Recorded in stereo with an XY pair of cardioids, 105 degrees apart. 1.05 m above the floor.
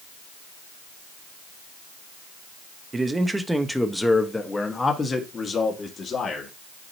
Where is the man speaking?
25° right, 0.9 m; by 6.5 s 40° left, 2 m.